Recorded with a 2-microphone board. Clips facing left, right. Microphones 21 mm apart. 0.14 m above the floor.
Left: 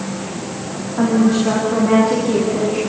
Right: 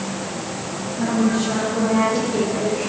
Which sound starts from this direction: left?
A woman speaking, at 1.0 s.